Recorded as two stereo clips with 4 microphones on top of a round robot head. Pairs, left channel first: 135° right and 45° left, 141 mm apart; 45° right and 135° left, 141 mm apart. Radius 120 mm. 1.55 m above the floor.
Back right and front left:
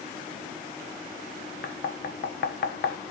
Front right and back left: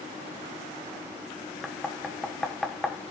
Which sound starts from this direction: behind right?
Knocking, at 1.6 s.